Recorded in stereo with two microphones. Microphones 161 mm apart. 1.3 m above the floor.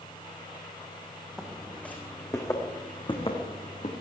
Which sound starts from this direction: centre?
Footsteps, at 1.4 s.